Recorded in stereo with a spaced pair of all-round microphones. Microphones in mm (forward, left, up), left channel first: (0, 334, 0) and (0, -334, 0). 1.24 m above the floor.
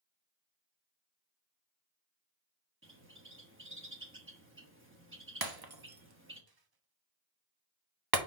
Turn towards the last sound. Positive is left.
turn(degrees=-35)  # may be behind; listen again after turning